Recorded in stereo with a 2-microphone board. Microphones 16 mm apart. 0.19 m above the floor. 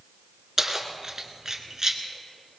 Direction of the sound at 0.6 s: 25° right (ahead or behind).